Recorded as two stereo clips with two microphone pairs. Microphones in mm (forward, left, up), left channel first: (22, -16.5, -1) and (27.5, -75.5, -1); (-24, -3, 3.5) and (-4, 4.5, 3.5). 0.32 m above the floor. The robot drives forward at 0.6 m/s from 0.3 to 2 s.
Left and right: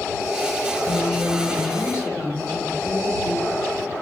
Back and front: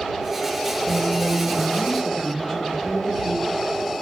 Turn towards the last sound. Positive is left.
turn(degrees=150)